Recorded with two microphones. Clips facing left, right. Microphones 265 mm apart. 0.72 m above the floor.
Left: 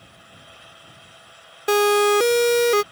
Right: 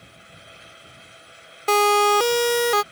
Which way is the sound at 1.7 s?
15° left (ahead or behind).